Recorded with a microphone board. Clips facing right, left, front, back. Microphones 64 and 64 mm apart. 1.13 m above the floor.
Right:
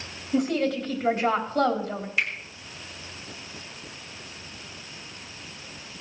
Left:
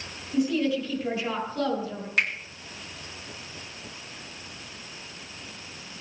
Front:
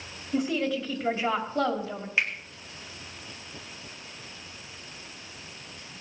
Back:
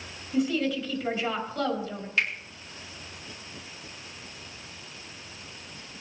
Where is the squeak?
No squeak in this recording.